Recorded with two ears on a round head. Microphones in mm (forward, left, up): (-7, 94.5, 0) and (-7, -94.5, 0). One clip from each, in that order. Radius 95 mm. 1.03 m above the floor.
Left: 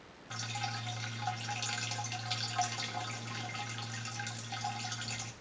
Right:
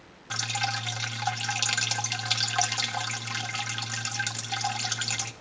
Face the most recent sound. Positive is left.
turn(degrees=-40)  # may be behind; listen again after turning